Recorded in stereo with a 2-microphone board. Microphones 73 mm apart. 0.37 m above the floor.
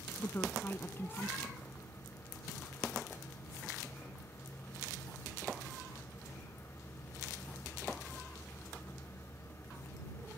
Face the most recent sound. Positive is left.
turn(degrees=30)  # may be behind; listen again after turning